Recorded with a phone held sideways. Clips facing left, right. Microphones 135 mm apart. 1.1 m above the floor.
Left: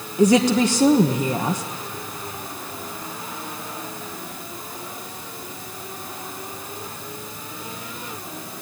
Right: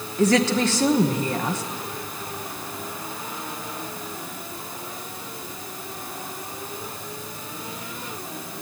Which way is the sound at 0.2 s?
15° left (ahead or behind).